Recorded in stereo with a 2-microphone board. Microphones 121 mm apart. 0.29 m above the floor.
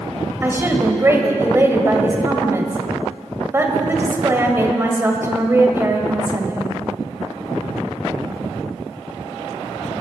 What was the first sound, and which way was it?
A woman speaking, 20° right (ahead or behind).